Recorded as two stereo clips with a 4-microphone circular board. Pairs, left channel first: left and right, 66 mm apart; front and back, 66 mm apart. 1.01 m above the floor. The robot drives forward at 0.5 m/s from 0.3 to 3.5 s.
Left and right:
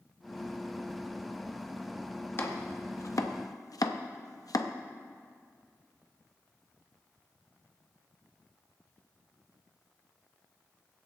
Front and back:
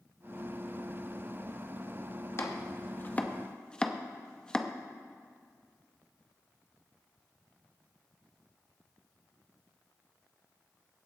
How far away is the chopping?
About 1.0 m.